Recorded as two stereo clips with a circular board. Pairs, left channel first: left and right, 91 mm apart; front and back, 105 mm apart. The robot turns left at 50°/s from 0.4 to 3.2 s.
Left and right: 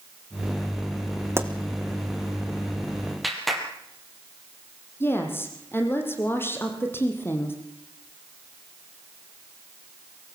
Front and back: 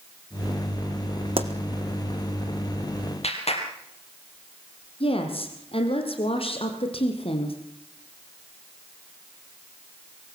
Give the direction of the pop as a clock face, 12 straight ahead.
5 o'clock.